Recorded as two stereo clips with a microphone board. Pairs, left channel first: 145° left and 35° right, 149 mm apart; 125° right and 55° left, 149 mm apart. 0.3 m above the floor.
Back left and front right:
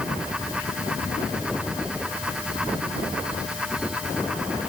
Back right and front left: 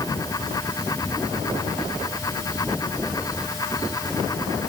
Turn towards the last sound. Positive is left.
No sound to turn to.